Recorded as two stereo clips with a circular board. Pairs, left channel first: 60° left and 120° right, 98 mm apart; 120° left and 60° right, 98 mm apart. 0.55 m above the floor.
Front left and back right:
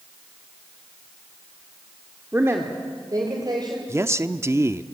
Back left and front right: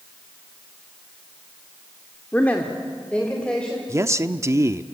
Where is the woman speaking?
175° right, 1.6 m; by 3.8 s 160° right, 3.5 m.